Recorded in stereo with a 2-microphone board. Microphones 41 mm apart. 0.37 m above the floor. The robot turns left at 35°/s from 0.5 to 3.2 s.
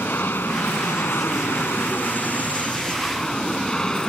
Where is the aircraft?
115° left; by 4.1 s 20° left.